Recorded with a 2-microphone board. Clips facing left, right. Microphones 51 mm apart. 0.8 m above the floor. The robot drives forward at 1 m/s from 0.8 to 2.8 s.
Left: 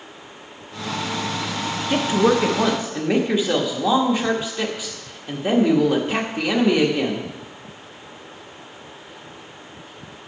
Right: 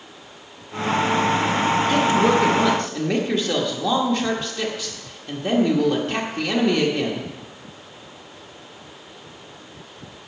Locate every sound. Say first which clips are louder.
1.9 s a woman speaking: left 2 dB; 25° left (ahead or behind), 0.8 m; by 7.3 s 15° left (ahead or behind), 1.3 m